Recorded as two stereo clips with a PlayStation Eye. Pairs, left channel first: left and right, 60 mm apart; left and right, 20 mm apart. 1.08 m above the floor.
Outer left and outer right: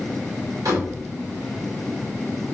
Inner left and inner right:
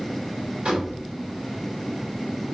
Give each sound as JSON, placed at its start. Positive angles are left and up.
{"t": 0.7, "sound": "a door slam", "side_deg": -65, "distance_m": 3.5}